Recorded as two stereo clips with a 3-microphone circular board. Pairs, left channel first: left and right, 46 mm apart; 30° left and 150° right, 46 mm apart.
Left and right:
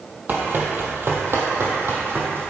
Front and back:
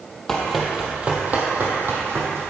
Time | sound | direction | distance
0.3 | running footsteps | 50° right | 2 m